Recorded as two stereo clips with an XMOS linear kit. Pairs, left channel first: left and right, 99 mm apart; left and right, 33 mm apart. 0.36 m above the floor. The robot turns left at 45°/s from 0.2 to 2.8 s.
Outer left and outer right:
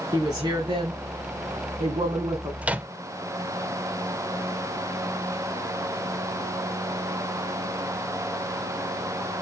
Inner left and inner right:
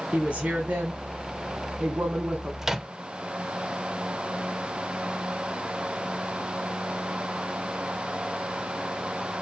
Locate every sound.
0.1 s a woman speaking: 40° right, 2.5 m; by 2.5 s 140° right, 2.5 m
2.6 s a microwave: 15° right (ahead or behind), 0.6 m